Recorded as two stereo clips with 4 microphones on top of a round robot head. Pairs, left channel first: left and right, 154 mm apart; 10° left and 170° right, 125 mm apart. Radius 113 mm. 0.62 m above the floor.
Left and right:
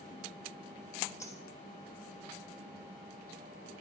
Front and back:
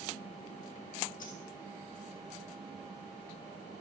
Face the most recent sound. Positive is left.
turn(degrees=20)